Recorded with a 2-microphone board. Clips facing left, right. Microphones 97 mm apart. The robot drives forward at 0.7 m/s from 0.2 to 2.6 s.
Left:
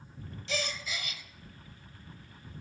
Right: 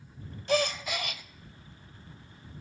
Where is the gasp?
50° right (ahead or behind), 0.7 m; by 1.2 s 55° right (ahead or behind), 0.7 m.